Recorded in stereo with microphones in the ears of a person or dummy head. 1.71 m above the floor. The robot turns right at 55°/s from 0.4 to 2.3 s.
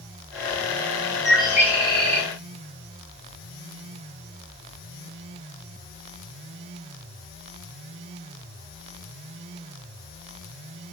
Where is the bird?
175° left, 0.6 m; by 2.3 s 125° right, 0.6 m.